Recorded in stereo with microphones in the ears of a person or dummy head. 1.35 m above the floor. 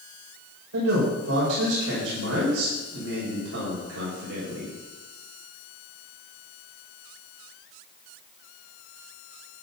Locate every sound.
0.7 s a man speaking: 75° right (ahead or behind), 5.5 m